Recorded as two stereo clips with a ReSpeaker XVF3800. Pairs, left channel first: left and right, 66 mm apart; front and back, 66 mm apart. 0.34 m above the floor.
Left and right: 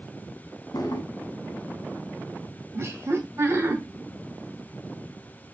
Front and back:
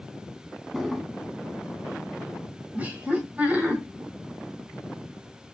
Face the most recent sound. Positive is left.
turn(degrees=-120)